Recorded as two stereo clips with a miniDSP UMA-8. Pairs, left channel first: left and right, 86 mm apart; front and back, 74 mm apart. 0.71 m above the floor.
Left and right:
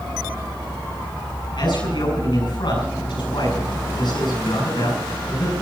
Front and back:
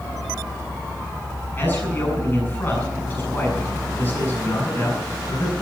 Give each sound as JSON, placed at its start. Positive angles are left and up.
{"t": 1.6, "sound": "a man speaking", "azimuth_deg": 65, "distance_m": 7.5}